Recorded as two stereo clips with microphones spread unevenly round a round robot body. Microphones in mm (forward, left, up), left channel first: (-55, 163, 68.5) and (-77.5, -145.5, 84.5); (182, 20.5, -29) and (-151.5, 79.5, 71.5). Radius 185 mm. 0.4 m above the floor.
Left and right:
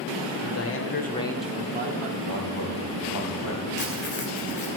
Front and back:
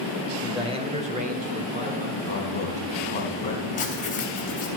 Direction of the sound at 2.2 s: 55° left.